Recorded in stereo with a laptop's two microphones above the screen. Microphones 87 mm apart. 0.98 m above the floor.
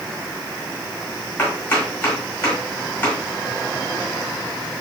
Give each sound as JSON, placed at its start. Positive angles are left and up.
{"t": 1.4, "sound": "chopping", "side_deg": 20, "distance_m": 1.4}